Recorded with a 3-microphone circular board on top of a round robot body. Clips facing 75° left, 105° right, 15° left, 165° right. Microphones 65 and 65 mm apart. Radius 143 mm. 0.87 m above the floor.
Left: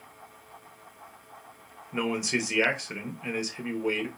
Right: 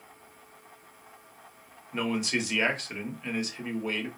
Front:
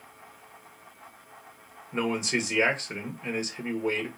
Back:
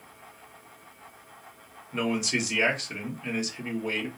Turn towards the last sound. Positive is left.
turn(degrees=20)